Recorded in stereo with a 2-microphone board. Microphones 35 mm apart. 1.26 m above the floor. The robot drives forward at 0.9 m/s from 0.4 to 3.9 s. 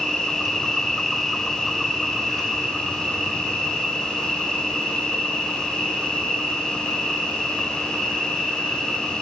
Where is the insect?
5° left (ahead or behind), 0.9 m; by 9.2 s centre (ahead or behind), 2.5 m.